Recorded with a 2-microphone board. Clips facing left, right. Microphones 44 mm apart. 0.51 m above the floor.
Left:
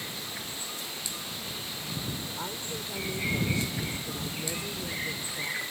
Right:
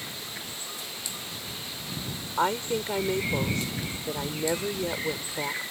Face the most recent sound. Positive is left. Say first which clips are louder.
# right 10 dB
turn(degrees=-55)  # may be behind; listen again after turning